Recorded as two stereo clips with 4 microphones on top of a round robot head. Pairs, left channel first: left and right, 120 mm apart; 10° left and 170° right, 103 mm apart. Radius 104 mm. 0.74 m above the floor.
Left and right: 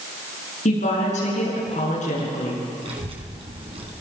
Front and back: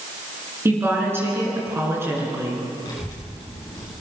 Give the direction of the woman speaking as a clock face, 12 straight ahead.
8 o'clock.